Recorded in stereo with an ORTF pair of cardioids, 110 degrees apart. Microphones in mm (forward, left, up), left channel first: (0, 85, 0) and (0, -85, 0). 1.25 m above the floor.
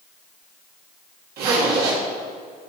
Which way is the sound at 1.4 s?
65° right.